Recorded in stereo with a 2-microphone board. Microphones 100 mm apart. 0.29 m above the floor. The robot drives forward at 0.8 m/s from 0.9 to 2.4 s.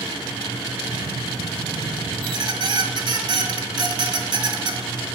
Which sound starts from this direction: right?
A squeak, at 2.2 s.